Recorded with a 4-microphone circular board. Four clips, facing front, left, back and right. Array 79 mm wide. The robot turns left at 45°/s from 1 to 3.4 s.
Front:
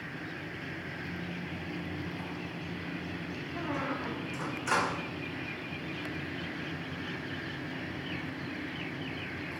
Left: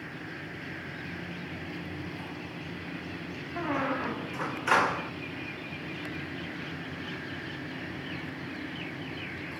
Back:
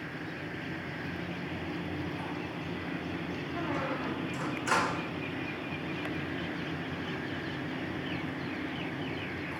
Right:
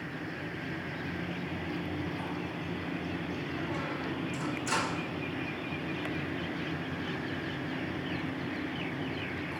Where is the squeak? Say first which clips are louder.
Left 9 dB, even; 90° left, 0.7 m.